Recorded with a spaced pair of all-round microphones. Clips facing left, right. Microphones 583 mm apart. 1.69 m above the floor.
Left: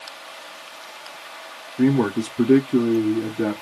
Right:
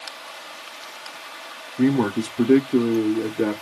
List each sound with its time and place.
1.8 s a man speaking: 5° right (ahead or behind), 0.6 m; by 3.6 s 10° left (ahead or behind), 0.8 m